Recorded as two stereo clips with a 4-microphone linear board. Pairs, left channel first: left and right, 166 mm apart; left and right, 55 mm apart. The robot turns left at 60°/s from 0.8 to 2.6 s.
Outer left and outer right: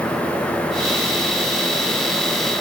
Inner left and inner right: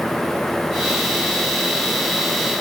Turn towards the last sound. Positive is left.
No sound to turn to.